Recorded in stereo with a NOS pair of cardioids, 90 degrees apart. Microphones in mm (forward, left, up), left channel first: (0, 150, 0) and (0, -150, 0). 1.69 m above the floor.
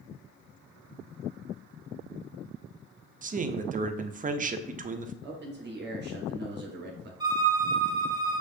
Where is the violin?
15° right, 1.1 m.